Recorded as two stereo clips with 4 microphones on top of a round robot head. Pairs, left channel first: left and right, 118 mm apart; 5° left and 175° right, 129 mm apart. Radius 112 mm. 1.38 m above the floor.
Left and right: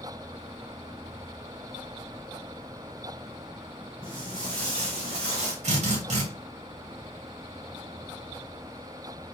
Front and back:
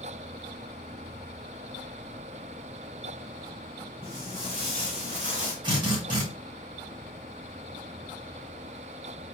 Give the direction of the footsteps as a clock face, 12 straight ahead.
4 o'clock.